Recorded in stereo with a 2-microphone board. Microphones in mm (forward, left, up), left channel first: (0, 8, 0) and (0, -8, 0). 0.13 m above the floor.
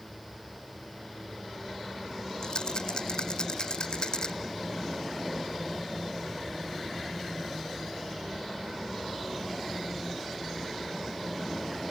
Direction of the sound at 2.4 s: 55° left (ahead or behind).